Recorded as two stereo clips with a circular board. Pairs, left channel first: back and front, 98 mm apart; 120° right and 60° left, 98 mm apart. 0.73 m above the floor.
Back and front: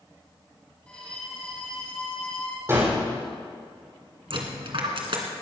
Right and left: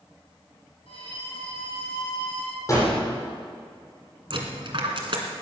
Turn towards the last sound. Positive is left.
turn(degrees=25)